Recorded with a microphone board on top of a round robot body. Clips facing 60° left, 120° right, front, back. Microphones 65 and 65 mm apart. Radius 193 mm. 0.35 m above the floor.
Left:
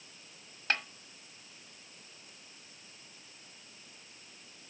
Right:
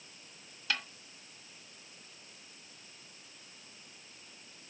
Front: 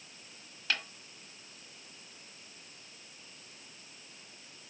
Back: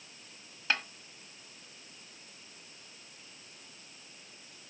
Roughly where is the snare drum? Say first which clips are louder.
Left 3 dB, back 3 dB; left.